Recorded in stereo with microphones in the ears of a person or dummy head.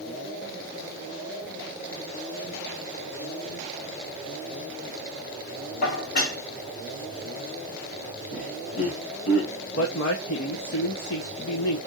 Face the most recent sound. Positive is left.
turn(degrees=70)  # may be behind; listen again after turning